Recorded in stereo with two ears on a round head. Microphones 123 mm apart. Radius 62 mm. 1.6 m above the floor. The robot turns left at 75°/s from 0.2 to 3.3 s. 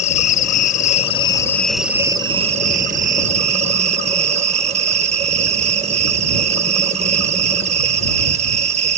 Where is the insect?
115° left; by 9.0 s 115° right.